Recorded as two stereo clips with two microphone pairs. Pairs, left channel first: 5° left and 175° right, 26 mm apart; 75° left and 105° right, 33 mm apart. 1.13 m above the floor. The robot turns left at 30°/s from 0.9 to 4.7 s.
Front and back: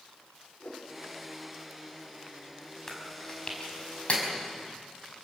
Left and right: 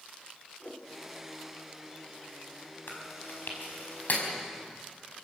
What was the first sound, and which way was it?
A whoosh, 15° left.